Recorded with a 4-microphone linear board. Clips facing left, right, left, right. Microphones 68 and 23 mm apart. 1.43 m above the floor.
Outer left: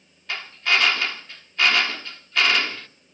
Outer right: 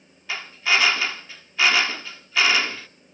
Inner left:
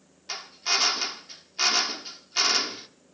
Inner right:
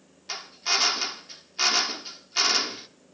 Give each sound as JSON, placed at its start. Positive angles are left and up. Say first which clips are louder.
{"t": 0.3, "sound": "a drill", "louder": "even, even", "side_deg": -5, "distance_m": 1.0}